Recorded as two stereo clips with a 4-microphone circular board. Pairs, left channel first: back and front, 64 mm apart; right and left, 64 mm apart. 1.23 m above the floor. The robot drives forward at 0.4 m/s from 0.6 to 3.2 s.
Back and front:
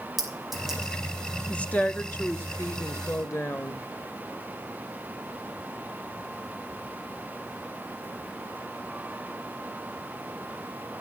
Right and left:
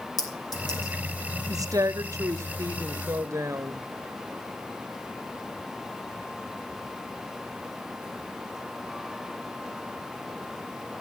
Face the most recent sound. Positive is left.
turn(degrees=135)